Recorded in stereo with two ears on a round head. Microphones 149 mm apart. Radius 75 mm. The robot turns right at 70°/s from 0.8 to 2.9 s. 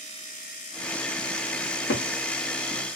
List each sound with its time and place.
1.6 s a cupboard door: 50° left (ahead or behind), 1.0 m; by 2.1 s 70° left (ahead or behind), 1.0 m